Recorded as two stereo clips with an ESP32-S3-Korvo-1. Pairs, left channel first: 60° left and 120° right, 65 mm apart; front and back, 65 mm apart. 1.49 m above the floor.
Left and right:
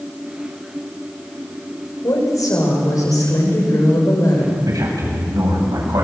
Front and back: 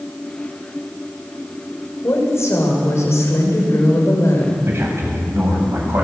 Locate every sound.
2.0 s a woman speaking: 40° left, 6 m
4.7 s a man speaking: 130° right, 8 m